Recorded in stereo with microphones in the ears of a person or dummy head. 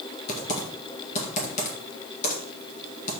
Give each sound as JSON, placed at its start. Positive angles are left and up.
{"t": 0.3, "sound": "typing on a keyboard", "side_deg": 45, "distance_m": 1.8}